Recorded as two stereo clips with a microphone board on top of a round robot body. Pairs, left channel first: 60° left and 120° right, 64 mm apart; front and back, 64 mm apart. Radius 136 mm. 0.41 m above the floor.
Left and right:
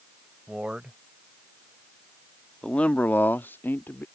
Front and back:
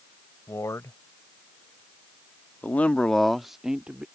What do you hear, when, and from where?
0.5 s a man speaking: 45° right; by 4.0 s 110° left